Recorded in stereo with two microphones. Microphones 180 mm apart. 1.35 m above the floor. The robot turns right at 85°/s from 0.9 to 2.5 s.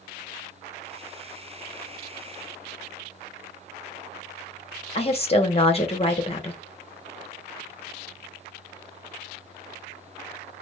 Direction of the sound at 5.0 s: 35° left (ahead or behind).